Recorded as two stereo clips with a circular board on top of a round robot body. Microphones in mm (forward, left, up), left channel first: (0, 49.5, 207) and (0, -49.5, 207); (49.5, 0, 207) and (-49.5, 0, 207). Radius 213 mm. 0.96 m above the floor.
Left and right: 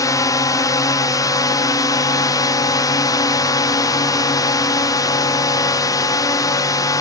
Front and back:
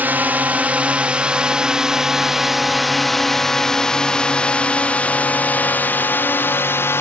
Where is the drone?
120° left; by 7.0 s 55° left.